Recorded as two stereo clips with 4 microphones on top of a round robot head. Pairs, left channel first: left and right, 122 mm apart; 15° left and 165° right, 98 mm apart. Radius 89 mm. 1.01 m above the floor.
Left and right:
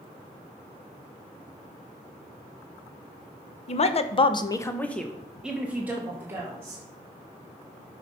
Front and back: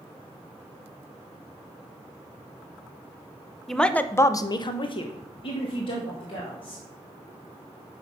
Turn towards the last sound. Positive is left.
turn(degrees=-20)